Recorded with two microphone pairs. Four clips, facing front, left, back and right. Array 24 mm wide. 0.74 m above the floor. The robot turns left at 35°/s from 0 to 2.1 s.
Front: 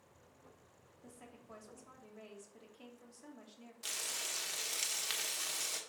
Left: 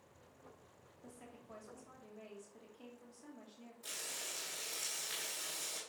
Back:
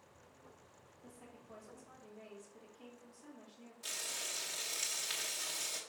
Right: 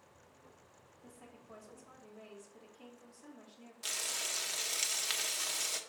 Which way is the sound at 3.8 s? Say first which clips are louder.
Right 7 dB, front 1 dB; 70° right.